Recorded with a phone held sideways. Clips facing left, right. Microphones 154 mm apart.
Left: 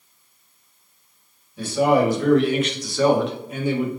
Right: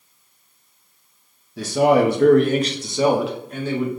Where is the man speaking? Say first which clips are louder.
Right 2 dB; 75° right (ahead or behind), 0.9 m; by 3.9 s 20° left (ahead or behind), 0.8 m.